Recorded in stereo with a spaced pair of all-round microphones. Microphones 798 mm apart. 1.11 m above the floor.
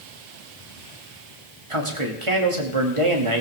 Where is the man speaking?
40° right (ahead or behind), 2.5 m.